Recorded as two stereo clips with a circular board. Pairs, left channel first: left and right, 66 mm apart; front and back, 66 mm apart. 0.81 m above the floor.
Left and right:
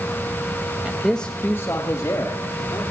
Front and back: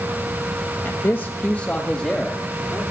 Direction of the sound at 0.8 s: 25° right.